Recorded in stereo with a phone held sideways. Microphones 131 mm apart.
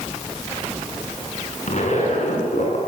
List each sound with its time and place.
1.7 s a zipper: 60° left (ahead or behind), 9 m